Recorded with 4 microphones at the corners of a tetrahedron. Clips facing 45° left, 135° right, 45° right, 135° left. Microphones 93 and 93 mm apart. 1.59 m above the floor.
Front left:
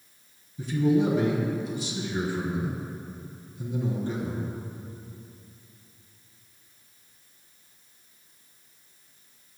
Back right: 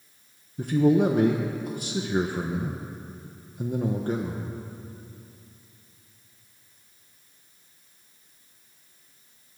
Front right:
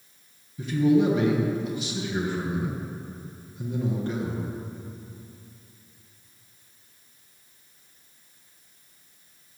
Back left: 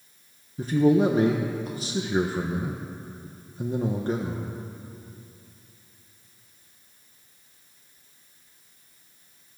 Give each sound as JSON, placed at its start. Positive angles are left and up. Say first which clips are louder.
{"t": 0.6, "sound": "a man speaking", "louder": "back right 3 dB, back left 1 dB", "azimuth_deg": -170, "distance_m": 1.2}